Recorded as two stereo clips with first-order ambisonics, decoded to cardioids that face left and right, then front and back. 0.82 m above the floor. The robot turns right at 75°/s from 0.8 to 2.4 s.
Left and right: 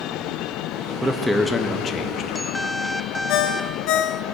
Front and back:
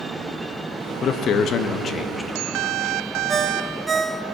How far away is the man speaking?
About 0.6 m.